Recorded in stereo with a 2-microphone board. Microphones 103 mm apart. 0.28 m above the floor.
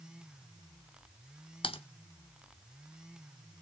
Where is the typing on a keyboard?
65° left (ahead or behind), 0.7 m.